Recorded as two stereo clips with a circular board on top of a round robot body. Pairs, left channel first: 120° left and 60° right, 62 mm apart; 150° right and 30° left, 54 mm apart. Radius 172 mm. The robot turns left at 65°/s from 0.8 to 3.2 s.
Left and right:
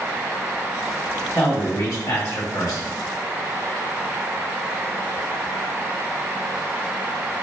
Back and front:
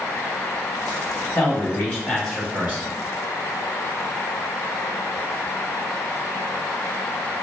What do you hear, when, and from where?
1.4 s a man speaking: straight behind, 1.7 m; by 2.9 s 80° left, 1.7 m